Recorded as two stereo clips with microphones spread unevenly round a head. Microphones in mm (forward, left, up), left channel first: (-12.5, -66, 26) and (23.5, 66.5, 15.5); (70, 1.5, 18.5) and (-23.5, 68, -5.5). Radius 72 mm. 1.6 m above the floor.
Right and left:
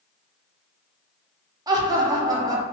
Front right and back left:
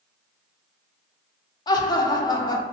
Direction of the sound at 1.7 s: 10° left.